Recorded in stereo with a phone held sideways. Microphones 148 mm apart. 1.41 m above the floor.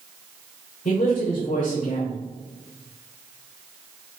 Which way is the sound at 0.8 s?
60° left (ahead or behind).